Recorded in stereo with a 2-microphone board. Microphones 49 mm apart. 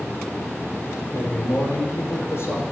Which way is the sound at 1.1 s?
55° left (ahead or behind).